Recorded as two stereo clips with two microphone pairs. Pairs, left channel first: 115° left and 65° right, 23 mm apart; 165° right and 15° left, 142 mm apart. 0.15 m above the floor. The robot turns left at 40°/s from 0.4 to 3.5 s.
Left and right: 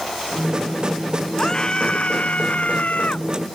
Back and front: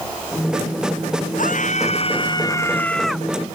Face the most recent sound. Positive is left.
turn(degrees=90)